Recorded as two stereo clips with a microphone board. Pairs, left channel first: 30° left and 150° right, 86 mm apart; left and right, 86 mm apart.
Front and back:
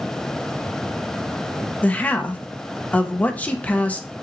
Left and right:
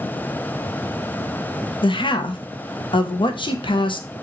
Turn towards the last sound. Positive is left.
turn(degrees=100)